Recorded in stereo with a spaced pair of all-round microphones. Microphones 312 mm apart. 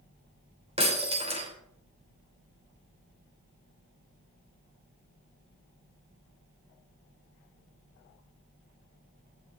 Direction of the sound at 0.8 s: 20° right (ahead or behind).